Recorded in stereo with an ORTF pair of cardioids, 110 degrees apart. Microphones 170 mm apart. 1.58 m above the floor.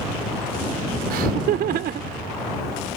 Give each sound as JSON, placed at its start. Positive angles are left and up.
{"t": 1.1, "sound": "laughter", "azimuth_deg": -70}